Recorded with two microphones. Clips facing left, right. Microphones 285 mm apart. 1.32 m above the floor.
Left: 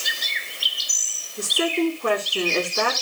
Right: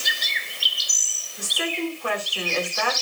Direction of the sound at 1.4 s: 50° left (ahead or behind).